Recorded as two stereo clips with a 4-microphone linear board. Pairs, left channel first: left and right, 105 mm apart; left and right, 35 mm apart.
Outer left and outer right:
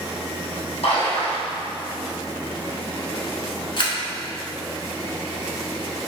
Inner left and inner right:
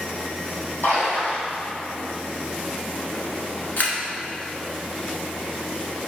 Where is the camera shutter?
55° left (ahead or behind), 0.7 m.